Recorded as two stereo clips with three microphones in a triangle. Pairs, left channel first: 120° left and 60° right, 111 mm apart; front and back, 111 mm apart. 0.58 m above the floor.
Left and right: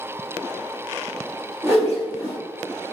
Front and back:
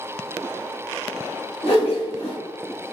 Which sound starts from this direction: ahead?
A whoosh, at 1.6 s.